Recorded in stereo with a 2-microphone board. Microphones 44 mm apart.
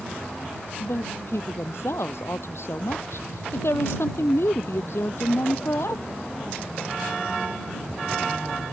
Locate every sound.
0.8 s a woman speaking: 70° left (ahead or behind)